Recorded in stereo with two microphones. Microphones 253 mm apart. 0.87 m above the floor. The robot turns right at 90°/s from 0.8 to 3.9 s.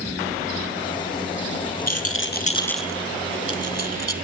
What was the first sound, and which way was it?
A rattle, 75° left (ahead or behind).